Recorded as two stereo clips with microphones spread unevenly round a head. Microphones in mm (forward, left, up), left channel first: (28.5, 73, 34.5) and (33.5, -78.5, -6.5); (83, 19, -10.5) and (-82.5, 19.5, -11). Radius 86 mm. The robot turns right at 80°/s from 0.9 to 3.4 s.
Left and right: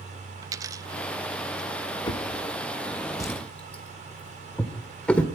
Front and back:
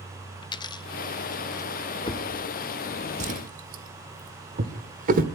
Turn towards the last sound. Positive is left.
turn(degrees=160)